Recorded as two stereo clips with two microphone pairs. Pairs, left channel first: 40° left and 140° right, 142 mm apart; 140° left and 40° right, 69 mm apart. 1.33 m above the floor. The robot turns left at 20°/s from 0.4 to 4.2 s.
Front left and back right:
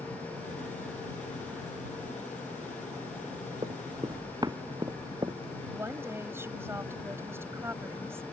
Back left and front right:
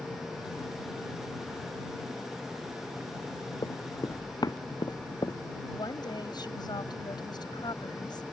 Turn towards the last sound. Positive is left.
turn(degrees=145)